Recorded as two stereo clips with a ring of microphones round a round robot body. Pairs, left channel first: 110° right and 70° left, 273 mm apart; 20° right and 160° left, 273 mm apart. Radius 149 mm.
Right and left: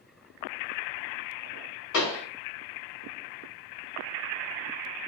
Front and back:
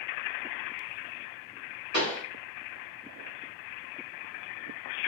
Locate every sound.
1.9 s a pop: 155° right, 2.0 m